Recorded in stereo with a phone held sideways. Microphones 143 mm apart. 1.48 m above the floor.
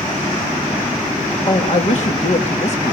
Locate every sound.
1.5 s a man speaking: 55° left (ahead or behind), 3 m